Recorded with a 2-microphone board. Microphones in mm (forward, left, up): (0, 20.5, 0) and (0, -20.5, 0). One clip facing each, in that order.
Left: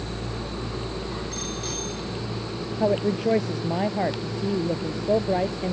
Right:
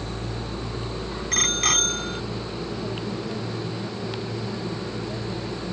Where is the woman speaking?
85° left.